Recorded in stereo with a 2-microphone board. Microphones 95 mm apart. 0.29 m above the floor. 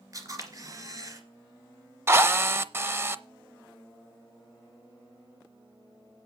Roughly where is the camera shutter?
Right.